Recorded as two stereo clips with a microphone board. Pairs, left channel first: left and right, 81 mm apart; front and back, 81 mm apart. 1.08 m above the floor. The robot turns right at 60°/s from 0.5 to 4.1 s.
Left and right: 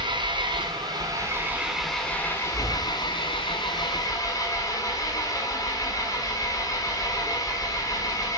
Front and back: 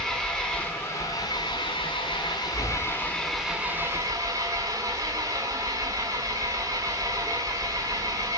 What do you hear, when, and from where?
0.0 s an engine running: 80° right, 6 m; by 8.4 s 135° left, 6 m